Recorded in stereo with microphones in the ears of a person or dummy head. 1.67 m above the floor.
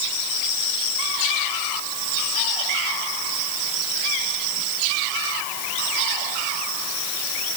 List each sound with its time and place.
Only background noise.